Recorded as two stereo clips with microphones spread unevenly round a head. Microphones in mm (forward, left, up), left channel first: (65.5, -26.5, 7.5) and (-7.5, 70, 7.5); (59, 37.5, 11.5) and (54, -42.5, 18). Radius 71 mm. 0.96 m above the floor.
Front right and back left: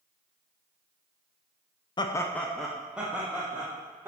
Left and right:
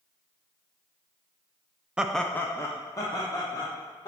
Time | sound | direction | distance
2.0 | laughter | 15° right | 0.6 m